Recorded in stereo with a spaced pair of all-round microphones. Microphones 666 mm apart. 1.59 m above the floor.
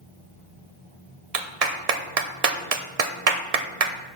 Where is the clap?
65° right (ahead or behind), 1.0 m.